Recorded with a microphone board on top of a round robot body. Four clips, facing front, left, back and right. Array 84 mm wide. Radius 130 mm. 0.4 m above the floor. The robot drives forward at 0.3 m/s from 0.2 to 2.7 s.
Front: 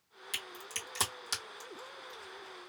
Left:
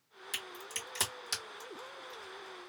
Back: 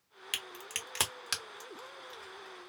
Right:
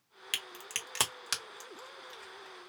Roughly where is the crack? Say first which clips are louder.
Right 1 dB, back 1 dB; behind right.